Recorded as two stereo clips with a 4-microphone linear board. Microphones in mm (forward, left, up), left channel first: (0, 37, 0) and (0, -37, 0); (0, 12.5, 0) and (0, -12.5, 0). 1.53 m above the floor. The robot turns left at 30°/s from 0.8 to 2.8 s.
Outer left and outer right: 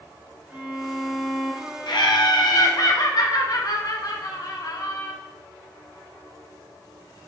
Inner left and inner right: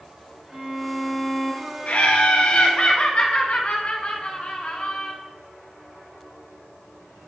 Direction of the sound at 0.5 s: 15° right.